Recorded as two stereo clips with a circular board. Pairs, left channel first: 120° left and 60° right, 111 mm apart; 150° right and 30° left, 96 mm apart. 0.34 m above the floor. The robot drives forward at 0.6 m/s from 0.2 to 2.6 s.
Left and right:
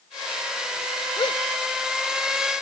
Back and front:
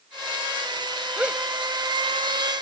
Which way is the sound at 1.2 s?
100° left.